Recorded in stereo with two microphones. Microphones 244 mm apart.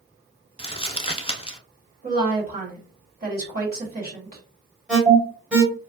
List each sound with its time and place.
0.6 s crumpling: 25° left (ahead or behind), 0.6 m
2.0 s a woman speaking: 40° right (ahead or behind), 1.5 m
4.9 s an alarm: 5° right (ahead or behind), 1.4 m